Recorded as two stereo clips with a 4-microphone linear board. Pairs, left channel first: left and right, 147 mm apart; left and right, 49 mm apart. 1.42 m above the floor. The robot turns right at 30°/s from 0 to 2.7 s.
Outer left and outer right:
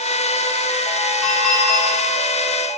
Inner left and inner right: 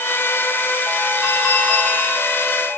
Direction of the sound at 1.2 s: 10° right (ahead or behind).